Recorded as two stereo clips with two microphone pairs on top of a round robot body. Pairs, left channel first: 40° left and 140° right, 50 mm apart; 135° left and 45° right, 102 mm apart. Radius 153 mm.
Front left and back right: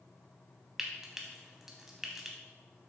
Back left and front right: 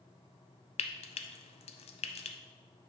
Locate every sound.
0.8 s frying: 140° left, 0.5 m